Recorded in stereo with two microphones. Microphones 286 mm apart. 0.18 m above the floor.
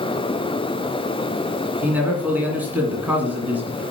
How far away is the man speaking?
About 2 m.